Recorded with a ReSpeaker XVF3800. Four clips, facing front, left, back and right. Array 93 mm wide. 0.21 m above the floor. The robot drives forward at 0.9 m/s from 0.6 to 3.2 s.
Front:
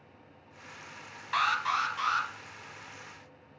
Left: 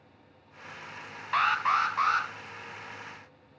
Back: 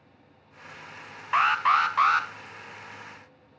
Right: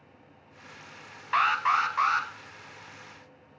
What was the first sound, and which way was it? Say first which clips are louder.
An alarm: right 1 dB, back 7 dB; 170° right.